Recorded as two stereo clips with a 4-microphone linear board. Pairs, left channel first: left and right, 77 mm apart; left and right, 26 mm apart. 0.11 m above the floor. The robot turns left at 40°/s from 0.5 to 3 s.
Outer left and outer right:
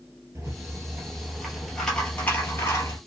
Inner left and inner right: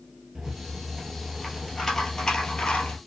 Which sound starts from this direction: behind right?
A rattle, at 0.3 s.